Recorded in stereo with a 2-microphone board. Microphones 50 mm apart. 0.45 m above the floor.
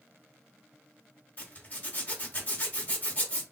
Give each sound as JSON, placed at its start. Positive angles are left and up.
{"t": 1.4, "sound": "a zipper", "side_deg": 35, "distance_m": 1.5}